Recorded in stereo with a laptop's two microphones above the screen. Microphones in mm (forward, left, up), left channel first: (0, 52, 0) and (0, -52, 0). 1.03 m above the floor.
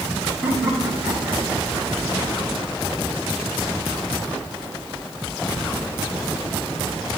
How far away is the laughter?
About 5.5 m.